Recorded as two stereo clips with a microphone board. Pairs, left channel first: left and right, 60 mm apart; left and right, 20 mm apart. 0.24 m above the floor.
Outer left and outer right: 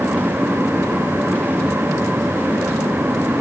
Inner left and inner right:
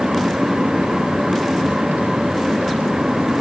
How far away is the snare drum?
I don't hear a snare drum.